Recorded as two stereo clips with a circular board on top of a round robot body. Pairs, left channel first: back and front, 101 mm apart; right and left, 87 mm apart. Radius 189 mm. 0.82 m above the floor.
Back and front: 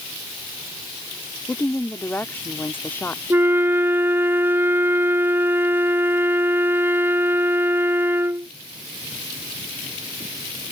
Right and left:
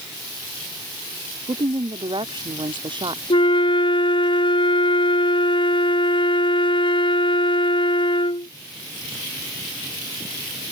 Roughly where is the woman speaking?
Left.